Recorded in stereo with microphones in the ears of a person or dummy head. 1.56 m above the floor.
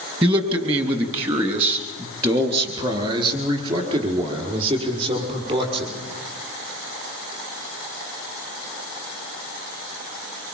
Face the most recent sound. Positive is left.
turn(degrees=-35)  # may be behind; listen again after turning